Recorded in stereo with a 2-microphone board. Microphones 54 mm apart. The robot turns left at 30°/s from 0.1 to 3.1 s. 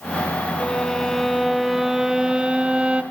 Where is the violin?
25° left, 0.6 m; by 3.0 s 50° right, 0.6 m.